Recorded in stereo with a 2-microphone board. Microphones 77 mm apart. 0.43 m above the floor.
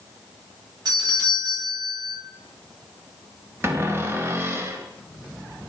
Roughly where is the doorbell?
Right.